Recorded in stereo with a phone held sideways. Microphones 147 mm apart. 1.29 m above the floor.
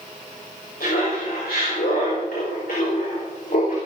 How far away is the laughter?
About 6.5 m.